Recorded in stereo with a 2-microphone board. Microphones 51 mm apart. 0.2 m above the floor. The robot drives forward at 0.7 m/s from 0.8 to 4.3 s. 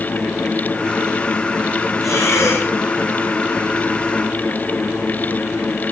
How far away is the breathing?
About 4.5 m.